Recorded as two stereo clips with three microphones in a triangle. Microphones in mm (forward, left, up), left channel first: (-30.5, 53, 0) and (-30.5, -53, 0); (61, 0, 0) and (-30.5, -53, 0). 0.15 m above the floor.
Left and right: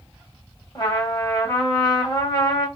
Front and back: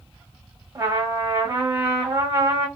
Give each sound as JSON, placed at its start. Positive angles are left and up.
{"t": 0.8, "sound": "a trumpet", "azimuth_deg": 145, "distance_m": 1.8}